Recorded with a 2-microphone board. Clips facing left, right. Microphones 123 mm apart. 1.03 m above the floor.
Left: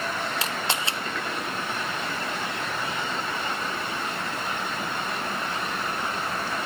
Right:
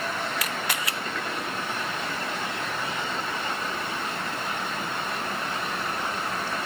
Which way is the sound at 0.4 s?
30° left (ahead or behind).